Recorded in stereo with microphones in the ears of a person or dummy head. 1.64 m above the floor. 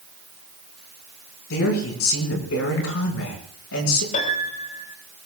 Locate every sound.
1.5 s a man speaking: 85° left, 6 m
4.1 s a piano: 50° left (ahead or behind), 4 m